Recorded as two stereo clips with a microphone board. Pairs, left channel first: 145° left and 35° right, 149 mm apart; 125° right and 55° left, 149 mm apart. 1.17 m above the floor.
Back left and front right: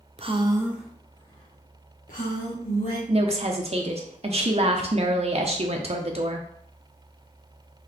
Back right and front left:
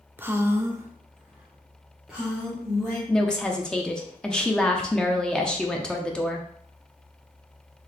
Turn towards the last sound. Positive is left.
turn(degrees=-40)